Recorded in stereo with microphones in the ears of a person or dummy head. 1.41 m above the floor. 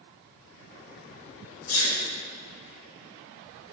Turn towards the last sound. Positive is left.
turn(degrees=60)  # may be behind; listen again after turning